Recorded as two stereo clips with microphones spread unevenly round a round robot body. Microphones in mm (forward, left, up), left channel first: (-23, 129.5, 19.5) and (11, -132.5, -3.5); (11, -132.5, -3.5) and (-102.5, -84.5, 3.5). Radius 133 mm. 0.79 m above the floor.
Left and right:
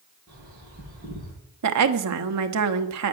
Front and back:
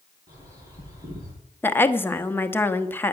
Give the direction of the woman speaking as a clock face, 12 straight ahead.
3 o'clock.